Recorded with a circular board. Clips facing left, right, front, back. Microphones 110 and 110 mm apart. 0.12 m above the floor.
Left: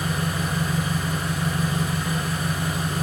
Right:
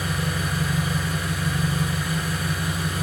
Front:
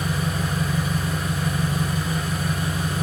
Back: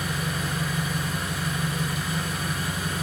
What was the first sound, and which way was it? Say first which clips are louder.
An engine running: left 1 dB, front 4 dB; 50° left.